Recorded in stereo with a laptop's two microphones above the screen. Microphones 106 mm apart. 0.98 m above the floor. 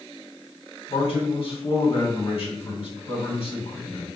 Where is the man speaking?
60° left (ahead or behind), 2.5 m.